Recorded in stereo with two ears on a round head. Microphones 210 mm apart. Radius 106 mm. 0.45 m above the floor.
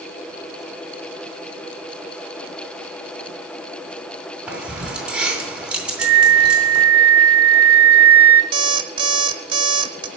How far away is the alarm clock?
About 1.1 m.